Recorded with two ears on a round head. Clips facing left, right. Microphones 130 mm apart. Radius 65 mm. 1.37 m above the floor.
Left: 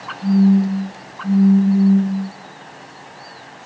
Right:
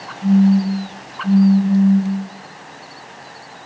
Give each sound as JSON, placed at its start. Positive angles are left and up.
{"t": 0.2, "sound": "a phone buzzing", "side_deg": 10, "distance_m": 1.0}